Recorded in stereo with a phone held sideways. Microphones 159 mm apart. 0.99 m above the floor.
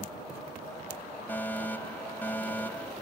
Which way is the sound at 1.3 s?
10° left (ahead or behind).